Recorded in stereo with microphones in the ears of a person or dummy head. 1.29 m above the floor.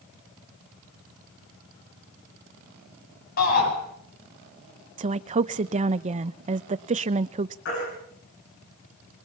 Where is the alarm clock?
No alarm clock in this recording.